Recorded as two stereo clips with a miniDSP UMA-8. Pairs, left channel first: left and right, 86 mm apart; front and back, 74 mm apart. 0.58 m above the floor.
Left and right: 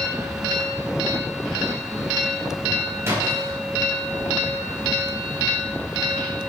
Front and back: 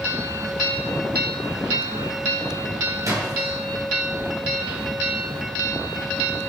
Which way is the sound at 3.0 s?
145° right.